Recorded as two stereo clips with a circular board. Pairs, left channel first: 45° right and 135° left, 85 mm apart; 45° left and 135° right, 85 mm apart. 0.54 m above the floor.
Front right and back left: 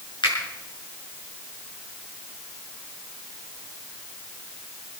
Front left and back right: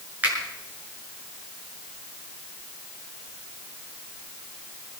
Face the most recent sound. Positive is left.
turn(degrees=-65)